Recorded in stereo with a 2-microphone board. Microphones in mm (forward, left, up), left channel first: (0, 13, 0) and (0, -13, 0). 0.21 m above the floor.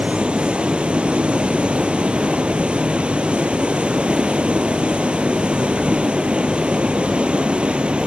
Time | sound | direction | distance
0.0 | running water | 50° right (ahead or behind) | 0.9 m